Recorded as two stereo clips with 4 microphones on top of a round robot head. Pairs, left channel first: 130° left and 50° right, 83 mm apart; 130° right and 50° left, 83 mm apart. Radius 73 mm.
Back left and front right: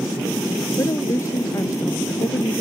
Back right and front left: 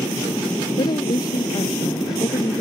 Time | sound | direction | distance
0.8 | a woman speaking | 170° right | ?